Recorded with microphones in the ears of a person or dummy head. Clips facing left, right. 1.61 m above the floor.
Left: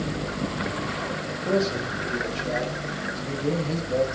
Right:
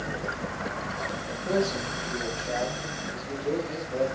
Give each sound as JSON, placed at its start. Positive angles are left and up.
{"t": 1.4, "sound": "a man speaking", "side_deg": 35, "distance_m": 6.5}